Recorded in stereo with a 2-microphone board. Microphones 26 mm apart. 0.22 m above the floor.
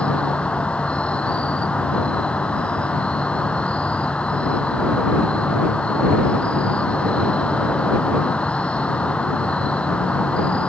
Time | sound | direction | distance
0.0 | an insect | 50° left (ahead or behind) | ?